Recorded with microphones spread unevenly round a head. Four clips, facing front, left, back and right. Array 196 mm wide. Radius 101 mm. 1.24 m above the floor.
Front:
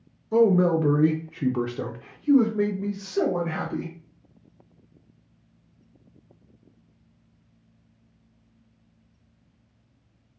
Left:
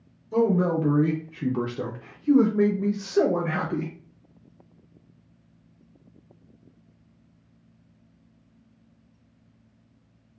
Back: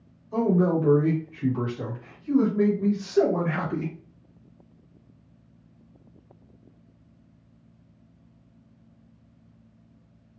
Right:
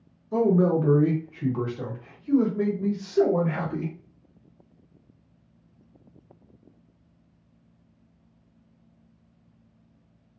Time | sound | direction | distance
0.3 | a man speaking | 15° right | 1.0 m